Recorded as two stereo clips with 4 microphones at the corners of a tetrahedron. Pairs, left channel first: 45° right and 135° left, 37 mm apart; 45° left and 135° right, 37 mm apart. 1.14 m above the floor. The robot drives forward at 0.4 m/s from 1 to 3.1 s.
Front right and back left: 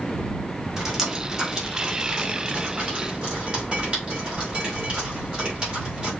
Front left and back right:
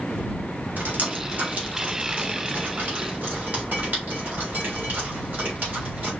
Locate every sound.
0.8 s dripping: 150° right, 1.0 m; by 6.1 s 165° right, 1.7 m